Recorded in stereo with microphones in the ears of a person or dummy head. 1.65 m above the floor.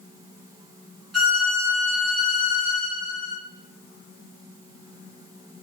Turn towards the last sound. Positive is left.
turn(degrees=0)  # may be behind; listen again after turning